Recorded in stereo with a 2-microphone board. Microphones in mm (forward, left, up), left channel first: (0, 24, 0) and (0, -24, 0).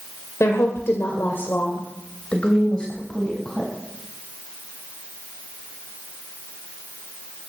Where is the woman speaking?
75° left (ahead or behind), 2.5 m; by 3.7 s 10° left (ahead or behind), 4.5 m.